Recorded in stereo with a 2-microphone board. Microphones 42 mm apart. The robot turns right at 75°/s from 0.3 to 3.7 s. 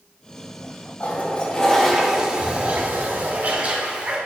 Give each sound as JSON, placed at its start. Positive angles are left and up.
{"t": 1.0, "sound": "a toilet flushing", "azimuth_deg": 110, "distance_m": 0.9}